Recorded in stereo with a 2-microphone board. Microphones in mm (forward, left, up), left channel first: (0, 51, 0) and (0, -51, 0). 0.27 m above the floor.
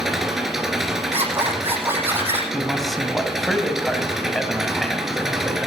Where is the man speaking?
Centre (ahead or behind), 2 m.